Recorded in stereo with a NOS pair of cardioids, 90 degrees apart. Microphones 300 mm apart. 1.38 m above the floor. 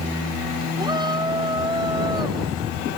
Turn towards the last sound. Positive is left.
turn(degrees=-15)